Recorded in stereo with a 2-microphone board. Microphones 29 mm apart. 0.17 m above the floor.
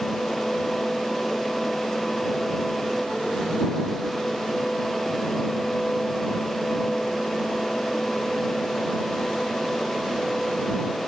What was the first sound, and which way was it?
Only background noise.